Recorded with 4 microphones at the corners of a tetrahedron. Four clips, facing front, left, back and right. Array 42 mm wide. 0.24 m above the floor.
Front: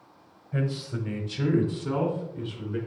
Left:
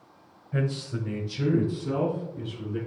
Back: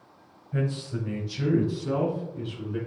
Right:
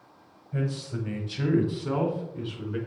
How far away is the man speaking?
About 1.0 m.